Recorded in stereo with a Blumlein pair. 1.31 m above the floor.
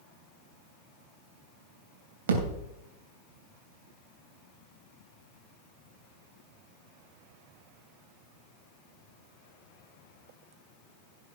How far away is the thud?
About 3 m.